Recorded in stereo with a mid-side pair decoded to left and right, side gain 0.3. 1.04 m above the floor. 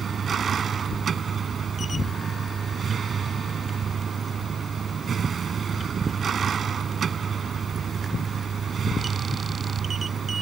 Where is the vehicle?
65° right.